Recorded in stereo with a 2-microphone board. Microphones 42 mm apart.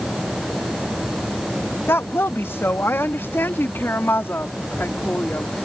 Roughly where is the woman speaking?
Left.